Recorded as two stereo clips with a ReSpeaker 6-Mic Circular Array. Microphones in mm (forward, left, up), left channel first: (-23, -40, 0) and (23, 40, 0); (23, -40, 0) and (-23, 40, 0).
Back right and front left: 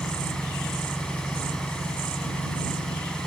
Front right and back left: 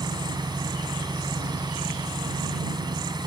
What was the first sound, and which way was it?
An engine running, 160° left.